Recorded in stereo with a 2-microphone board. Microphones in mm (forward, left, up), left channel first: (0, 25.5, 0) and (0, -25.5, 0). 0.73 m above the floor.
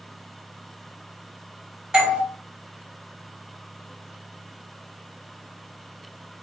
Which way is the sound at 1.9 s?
20° right (ahead or behind).